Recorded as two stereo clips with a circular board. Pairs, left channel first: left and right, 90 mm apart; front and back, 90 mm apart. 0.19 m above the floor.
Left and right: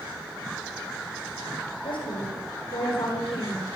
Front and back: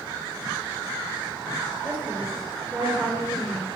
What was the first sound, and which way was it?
A woman speaking, 105° left.